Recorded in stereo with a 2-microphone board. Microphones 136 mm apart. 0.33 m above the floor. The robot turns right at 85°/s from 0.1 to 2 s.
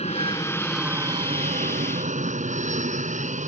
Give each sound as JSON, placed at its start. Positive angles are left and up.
{"t": 0.0, "sound": "an aircraft", "azimuth_deg": 125}